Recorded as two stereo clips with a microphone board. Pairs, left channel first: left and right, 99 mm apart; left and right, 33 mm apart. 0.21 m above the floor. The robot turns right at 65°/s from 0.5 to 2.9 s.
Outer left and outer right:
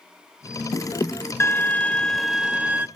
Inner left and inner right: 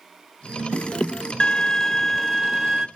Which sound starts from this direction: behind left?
A violin, at 1.4 s.